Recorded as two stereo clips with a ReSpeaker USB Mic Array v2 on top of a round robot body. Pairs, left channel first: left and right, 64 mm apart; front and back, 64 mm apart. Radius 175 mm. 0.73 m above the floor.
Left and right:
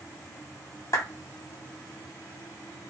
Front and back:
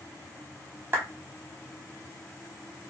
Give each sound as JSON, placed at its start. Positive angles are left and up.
{"t": 0.9, "sound": "a clap", "azimuth_deg": 120, "distance_m": 2.0}